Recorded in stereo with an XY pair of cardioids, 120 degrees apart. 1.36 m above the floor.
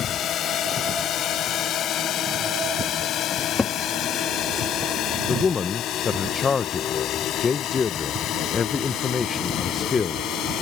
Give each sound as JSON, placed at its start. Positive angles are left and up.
{"t": 0.0, "sound": "a drone", "azimuth_deg": 60}
{"t": 3.3, "sound": "a cupboard door", "azimuth_deg": 30}
{"t": 5.3, "sound": "a man speaking", "azimuth_deg": 35}